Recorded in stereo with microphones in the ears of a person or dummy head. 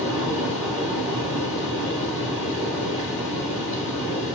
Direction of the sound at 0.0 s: 5° right (ahead or behind).